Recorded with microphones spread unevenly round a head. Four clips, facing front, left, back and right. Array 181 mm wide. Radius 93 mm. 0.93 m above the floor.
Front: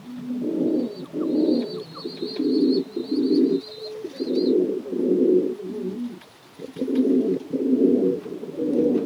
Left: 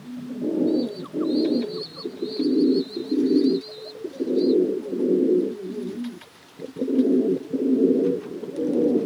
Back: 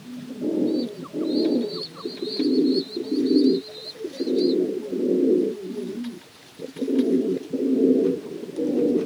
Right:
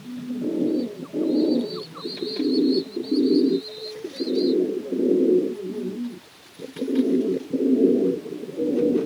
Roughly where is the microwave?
I don't hear a microwave.